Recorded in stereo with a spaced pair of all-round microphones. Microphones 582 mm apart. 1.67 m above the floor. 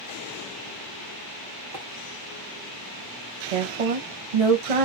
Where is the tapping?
35° right (ahead or behind), 0.7 m.